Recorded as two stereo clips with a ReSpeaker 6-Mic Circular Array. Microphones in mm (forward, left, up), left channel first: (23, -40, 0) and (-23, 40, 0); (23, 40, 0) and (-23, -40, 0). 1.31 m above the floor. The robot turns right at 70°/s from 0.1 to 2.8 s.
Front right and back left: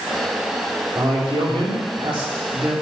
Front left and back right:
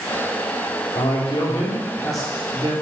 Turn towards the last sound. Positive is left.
turn(degrees=-165)